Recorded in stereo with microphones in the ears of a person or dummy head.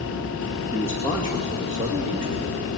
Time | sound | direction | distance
0.7 | a man speaking | 15° right (ahead or behind) | 2 m